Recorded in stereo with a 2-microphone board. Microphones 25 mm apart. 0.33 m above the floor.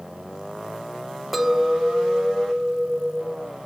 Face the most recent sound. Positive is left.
turn(degrees=-15)  # may be behind; listen again after turning